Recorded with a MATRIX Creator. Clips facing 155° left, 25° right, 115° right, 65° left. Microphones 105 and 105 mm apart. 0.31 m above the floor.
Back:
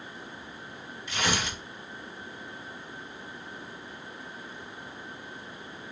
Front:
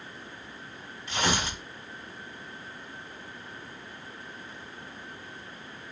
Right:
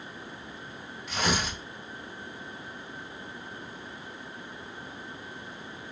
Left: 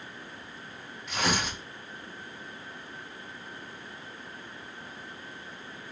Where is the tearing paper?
25° right, 2.0 m.